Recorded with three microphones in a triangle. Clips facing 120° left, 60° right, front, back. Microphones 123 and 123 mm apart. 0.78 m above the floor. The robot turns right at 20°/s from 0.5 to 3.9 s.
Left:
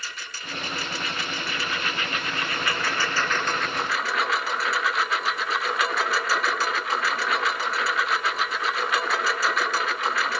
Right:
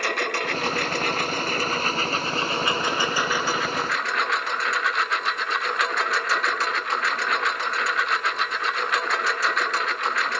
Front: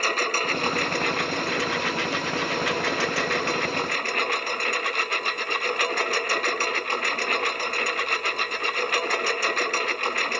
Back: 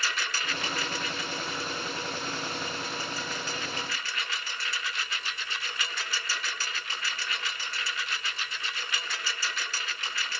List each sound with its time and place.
0.0 s a lawn mower: 35° right; by 10.4 s 30° left